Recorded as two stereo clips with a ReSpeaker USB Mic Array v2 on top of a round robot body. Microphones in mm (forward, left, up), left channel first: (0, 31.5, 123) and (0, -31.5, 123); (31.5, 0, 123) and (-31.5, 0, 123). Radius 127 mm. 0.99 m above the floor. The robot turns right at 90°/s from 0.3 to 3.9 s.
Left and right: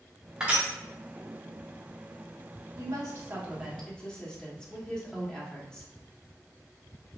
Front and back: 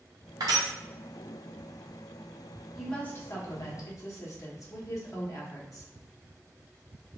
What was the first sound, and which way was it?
Crushing, 170° right.